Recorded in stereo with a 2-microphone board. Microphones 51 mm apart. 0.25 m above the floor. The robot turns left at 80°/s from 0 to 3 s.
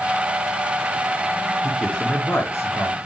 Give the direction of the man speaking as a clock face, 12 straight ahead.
6 o'clock.